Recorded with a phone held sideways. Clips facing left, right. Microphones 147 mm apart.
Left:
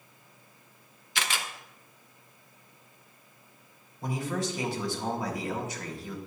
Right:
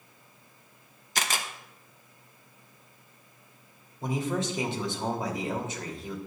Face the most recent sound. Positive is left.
turn(degrees=-25)  # may be behind; listen again after turning